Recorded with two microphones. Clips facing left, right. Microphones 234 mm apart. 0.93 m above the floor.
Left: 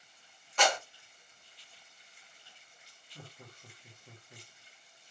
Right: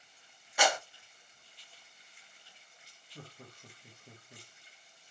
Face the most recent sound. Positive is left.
turn(degrees=-15)  # may be behind; listen again after turning